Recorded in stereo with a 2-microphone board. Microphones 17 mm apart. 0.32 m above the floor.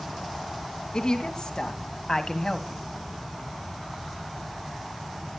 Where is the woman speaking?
45° left (ahead or behind), 2.5 m; by 2.9 s 20° left (ahead or behind), 1.7 m.